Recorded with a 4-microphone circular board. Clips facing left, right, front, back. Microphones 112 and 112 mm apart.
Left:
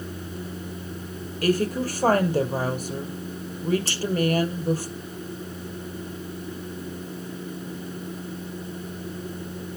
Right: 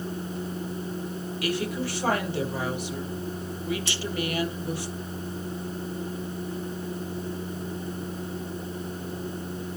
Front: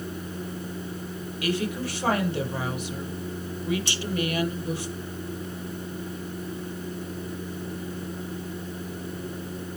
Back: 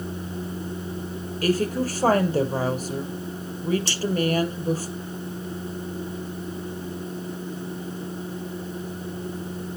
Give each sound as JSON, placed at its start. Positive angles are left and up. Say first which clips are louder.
{"t": 1.4, "sound": "a woman speaking", "louder": "left 7 dB, back 5 dB", "azimuth_deg": 135, "distance_m": 3.0}
{"t": 3.9, "sound": "a clink", "louder": "even, back 1 dB", "azimuth_deg": 40, "distance_m": 3.0}